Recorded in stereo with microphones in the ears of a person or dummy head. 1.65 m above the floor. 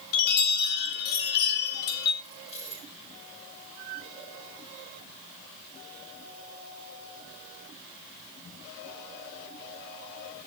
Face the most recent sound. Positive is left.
turn(degrees=35)  # may be behind; listen again after turning